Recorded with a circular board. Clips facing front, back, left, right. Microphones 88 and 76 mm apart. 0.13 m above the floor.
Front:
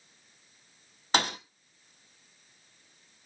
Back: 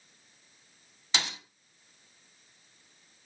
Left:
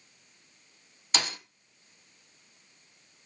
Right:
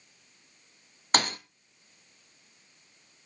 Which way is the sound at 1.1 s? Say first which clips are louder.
Front 7 dB, right 5 dB; 45° right.